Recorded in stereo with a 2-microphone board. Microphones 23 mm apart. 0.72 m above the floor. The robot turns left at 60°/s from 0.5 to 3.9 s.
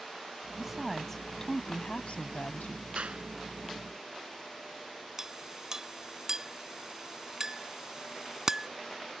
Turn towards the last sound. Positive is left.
turn(degrees=-25)  # may be behind; listen again after turning